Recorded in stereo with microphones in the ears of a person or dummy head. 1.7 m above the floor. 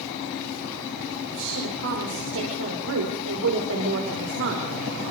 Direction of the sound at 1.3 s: 65° right (ahead or behind).